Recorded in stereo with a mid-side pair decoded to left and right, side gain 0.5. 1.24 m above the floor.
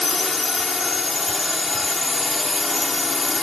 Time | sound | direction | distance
0.0 | a drone | 25° left | ?